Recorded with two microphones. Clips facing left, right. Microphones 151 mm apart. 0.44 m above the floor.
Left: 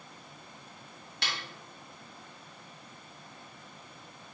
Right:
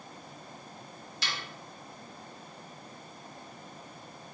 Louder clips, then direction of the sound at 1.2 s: Left 1 dB; 65° left (ahead or behind).